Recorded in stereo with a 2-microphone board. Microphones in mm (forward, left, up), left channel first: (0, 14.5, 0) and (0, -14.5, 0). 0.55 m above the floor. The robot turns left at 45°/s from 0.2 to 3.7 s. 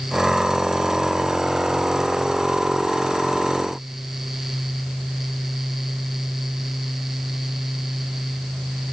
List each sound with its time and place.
Only background noise.